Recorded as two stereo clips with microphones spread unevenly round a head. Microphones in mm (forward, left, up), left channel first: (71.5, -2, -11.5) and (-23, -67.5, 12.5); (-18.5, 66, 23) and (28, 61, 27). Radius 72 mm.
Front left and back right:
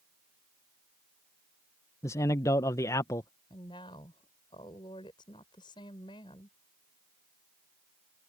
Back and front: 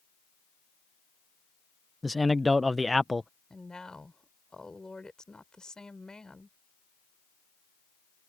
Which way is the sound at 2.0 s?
85° left.